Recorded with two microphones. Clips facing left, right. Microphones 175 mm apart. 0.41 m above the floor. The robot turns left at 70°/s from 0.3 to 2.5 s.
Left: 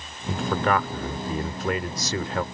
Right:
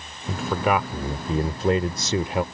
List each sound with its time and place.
0.3 s a man speaking: centre (ahead or behind); by 2.4 s 15° right (ahead or behind)